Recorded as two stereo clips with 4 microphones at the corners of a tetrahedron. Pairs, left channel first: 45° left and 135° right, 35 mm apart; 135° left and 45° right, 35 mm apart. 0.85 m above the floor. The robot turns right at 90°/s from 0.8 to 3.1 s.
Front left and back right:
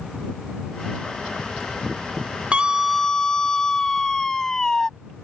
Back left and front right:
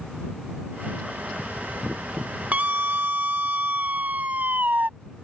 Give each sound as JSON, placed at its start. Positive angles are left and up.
{"t": 2.5, "sound": "a scream", "azimuth_deg": -80}